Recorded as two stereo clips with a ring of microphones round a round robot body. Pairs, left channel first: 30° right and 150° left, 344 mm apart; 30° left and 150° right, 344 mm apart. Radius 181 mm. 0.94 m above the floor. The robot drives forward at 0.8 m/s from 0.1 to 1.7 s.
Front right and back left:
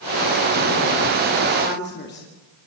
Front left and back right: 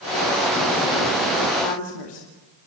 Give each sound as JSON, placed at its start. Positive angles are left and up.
{"t": 1.6, "sound": "a woman speaking", "azimuth_deg": 30, "distance_m": 3.0}